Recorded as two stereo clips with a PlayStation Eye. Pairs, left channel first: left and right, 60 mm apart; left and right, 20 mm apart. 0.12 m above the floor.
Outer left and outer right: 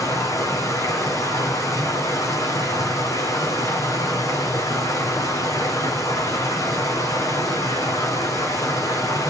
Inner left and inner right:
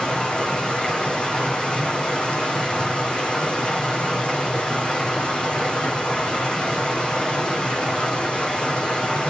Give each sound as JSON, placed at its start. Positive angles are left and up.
{"t": 0.0, "sound": "running water", "side_deg": 60, "distance_m": 3.0}